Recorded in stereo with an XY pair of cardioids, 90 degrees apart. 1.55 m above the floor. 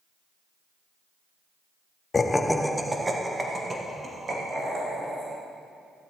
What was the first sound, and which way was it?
Laughter, 35° left.